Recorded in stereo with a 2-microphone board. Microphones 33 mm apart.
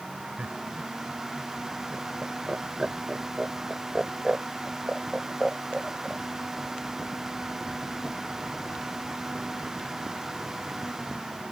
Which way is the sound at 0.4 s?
50° right (ahead or behind).